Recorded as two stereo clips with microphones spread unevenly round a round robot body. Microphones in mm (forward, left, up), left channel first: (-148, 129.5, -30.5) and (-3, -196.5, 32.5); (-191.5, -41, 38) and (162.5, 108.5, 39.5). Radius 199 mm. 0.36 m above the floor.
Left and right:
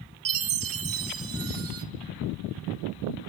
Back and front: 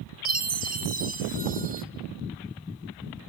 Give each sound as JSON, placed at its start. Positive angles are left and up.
{"t": 0.2, "sound": "a chime", "azimuth_deg": -30, "distance_m": 1.6}